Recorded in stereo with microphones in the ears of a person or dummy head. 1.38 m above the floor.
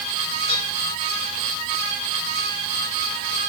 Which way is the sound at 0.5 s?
20° left (ahead or behind).